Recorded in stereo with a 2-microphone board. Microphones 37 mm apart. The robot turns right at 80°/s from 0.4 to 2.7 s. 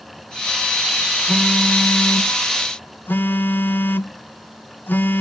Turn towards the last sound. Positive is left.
turn(degrees=115)